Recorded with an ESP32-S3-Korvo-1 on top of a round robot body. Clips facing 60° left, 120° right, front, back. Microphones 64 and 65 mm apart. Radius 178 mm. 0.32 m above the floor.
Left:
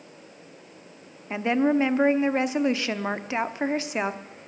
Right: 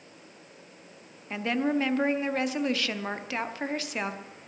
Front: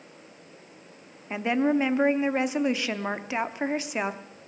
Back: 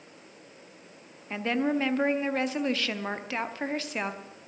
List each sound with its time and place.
1.3 s a woman speaking: 45° left, 1.2 m